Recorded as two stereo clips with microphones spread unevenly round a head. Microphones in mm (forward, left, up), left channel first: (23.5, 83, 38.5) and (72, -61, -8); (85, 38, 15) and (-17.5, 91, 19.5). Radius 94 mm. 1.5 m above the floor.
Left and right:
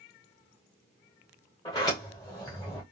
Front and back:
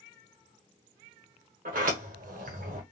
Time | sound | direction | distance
1.6 | a sliding door | straight behind | 0.9 m